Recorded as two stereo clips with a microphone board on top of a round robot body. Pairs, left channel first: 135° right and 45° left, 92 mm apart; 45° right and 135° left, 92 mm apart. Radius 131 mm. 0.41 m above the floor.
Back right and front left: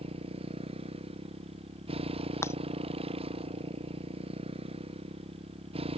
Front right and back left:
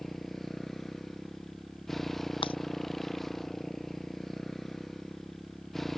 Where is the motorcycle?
40° left.